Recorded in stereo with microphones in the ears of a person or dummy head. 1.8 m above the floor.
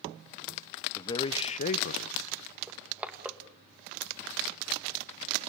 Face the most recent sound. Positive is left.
turn(degrees=-5)  # may be behind; listen again after turning